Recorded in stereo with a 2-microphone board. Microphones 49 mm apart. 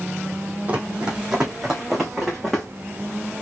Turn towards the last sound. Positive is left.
turn(degrees=5)  # may be behind; listen again after turning